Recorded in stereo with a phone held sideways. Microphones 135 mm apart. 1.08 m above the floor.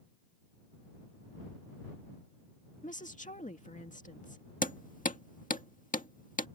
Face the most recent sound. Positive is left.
turn(degrees=80)